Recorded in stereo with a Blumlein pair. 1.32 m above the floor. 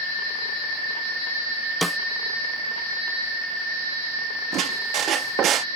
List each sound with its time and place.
1.8 s a snare drum: straight ahead
4.5 s a squeak: 30° right